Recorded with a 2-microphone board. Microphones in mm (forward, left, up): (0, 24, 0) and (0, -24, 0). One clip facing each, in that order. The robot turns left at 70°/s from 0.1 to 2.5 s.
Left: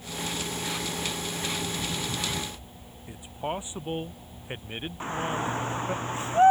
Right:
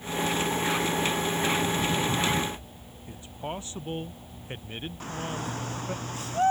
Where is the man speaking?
20° left (ahead or behind).